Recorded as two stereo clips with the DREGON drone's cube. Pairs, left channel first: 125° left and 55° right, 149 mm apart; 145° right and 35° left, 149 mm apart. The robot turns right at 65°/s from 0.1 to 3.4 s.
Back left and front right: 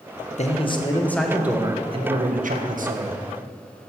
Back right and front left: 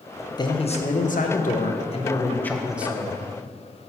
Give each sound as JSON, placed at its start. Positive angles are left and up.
{"t": 0.4, "sound": "a man speaking", "azimuth_deg": 155, "distance_m": 0.6}